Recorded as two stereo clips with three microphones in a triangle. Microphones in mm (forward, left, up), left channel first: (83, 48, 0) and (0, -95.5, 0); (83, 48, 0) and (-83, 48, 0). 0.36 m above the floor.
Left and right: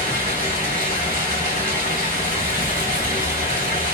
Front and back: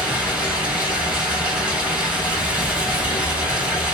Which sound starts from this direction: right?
Running water, at 0.0 s.